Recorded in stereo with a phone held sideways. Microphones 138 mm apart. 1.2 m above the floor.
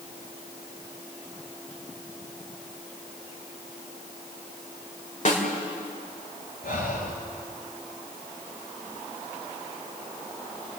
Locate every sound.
5.2 s a snare drum: 55° left (ahead or behind), 3 m
6.6 s breathing: 70° left (ahead or behind), 3.5 m